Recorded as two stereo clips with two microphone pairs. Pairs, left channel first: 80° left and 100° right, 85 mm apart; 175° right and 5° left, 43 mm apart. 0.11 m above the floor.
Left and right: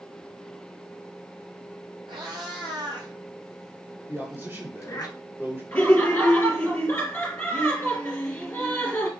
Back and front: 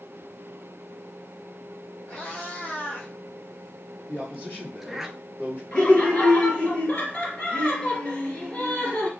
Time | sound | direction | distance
2.1 | a cat meowing | 115° right | 2 m
4.1 | a man speaking | 155° right | 2.5 m
5.7 | laughter | 135° left | 2.5 m